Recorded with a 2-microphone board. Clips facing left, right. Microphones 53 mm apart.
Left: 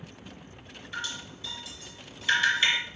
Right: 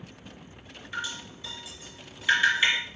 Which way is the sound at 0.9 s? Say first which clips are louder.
Right 2 dB; 25° right (ahead or behind).